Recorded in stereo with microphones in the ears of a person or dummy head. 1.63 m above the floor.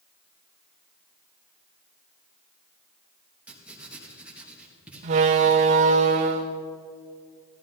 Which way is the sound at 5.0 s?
35° right (ahead or behind).